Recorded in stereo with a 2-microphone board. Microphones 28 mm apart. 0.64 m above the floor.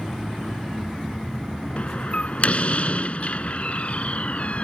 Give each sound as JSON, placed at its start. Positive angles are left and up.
{"t": 1.8, "sound": "a door slam", "side_deg": 45}